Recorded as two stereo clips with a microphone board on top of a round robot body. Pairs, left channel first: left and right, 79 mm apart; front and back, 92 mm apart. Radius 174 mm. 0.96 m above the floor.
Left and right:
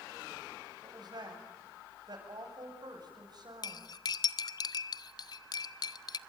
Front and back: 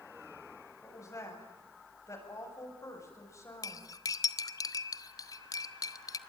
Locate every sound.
0.8 s a woman speaking: 55° right, 7.5 m
3.6 s cutlery clinking: 50° left, 0.7 m